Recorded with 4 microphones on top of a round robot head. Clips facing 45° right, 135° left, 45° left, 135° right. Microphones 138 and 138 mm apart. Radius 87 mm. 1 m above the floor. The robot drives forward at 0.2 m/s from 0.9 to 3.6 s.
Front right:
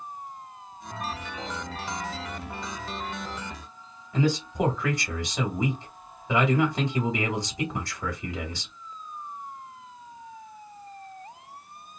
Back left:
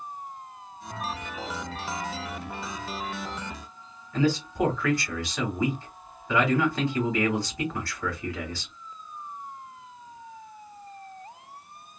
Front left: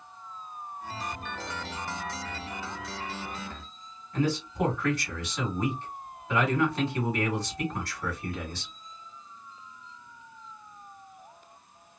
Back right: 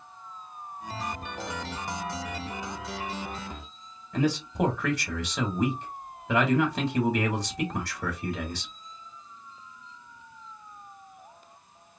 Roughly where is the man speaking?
Behind right.